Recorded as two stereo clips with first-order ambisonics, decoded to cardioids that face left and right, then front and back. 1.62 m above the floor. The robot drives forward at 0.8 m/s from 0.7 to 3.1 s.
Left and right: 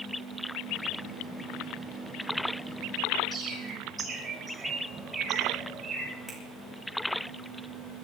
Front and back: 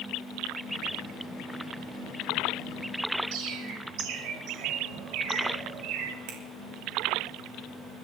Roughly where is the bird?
Behind.